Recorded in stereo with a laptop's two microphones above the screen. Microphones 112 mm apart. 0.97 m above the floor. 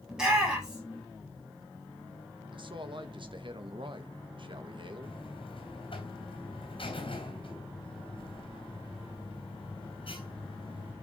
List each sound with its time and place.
0.1 s a shout: 5° right (ahead or behind), 4.5 m
2.5 s a man speaking: 50° right (ahead or behind), 1.2 m
5.0 s a buzzer: 55° left (ahead or behind), 3 m